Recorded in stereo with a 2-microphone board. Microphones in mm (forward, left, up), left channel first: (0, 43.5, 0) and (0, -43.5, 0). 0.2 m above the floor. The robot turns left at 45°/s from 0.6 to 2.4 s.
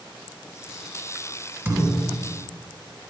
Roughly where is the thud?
Behind right.